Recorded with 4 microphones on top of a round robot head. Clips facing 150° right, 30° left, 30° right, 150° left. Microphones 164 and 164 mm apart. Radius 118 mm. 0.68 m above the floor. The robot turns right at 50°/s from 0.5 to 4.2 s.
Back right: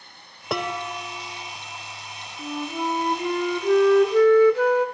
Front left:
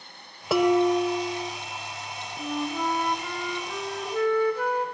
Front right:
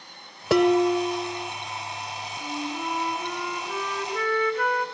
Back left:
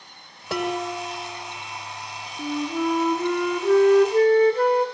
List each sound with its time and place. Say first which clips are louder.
0.5 s dishes clattering: front left 10 dB, front right 8 dB; 55° right, 2.0 m; by 1.5 s 5° right, 2.0 m
2.4 s a flute: even, back left 8 dB; 115° left, 2.5 m; by 4.9 s 155° right, 2.5 m